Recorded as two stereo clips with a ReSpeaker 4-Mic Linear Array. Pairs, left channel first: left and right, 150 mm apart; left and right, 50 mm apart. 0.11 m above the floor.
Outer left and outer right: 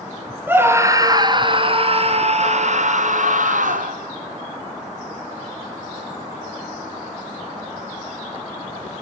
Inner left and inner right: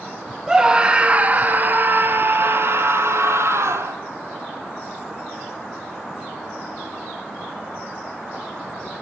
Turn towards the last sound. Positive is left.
turn(degrees=-65)  # may be behind; listen again after turning